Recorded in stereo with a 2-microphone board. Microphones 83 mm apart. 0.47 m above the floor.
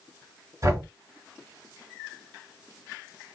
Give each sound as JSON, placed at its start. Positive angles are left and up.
{"t": 0.6, "sound": "knocking", "side_deg": -40, "distance_m": 2.0}